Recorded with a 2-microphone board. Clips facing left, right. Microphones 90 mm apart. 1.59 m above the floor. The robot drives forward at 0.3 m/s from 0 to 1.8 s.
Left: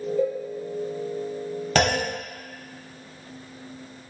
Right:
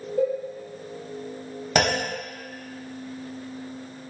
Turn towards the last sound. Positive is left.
turn(degrees=-10)  # may be behind; listen again after turning